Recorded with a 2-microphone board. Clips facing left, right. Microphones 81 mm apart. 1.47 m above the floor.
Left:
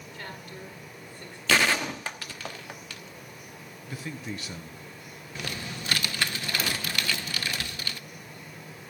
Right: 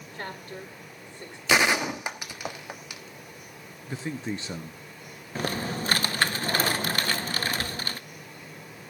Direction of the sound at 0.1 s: 40° right (ahead or behind).